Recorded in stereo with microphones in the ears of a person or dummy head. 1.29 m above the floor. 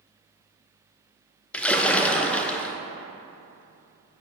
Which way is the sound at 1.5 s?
5° left (ahead or behind).